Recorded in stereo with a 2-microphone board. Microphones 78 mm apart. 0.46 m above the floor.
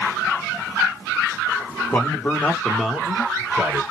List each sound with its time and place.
1.9 s a man speaking: 25° left (ahead or behind), 0.8 m; by 3.8 s 20° right (ahead or behind), 1.2 m